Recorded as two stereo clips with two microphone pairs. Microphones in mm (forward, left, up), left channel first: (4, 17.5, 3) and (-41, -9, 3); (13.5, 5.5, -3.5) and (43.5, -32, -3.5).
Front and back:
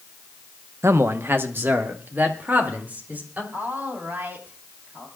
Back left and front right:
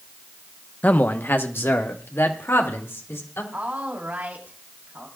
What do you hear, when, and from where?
0.8 s a man speaking: 175° right, 0.8 m; by 3.4 s 155° left, 3.5 m
3.5 s a woman speaking: 100° right, 3.5 m